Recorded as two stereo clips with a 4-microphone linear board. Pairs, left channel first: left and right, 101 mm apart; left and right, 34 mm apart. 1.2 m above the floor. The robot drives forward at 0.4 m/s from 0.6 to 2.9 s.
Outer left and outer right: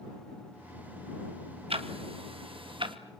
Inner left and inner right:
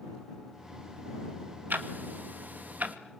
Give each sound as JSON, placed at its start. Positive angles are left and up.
{"t": 1.7, "sound": "ticking", "side_deg": -70, "distance_m": 1.7}